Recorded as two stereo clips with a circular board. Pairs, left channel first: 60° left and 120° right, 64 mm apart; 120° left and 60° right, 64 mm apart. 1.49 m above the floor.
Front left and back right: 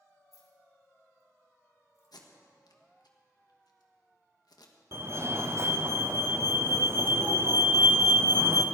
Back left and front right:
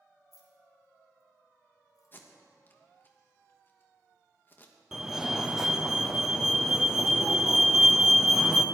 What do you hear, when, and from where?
0.3 s keys jangling: 95° left, 2.5 m; by 2.1 s 100° left, 4 m
2.1 s tape being pulled: 60° left, 1.4 m
4.9 s a fire alarm: 140° right, 0.8 m